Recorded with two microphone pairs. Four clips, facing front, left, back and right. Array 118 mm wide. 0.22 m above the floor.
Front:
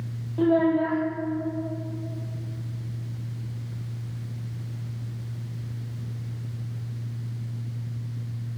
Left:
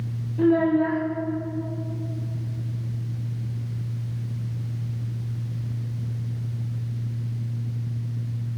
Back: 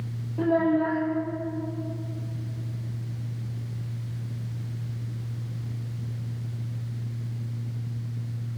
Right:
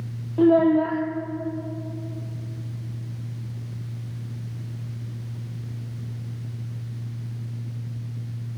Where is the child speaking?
85° right, 4.5 m.